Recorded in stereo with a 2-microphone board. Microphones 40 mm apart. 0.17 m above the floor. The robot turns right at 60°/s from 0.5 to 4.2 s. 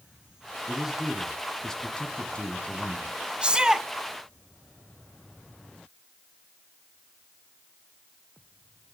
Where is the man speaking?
30° right, 1.6 m; by 3.2 s 120° left, 1.6 m.